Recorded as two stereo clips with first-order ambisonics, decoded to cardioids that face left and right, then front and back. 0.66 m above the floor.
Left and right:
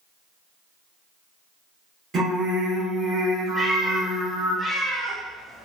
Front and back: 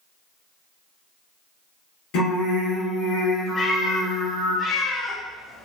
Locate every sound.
2.1 s singing: 20° right, 1.0 m
3.5 s a cat meowing: 15° right, 0.5 m